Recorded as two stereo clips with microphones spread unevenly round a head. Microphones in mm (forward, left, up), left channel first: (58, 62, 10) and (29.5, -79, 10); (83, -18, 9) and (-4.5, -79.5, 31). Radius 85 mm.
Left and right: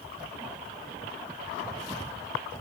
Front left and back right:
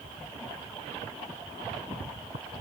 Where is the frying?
I don't hear frying.